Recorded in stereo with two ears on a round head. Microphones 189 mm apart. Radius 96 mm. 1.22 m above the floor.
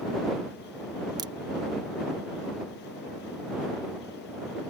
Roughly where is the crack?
Centre.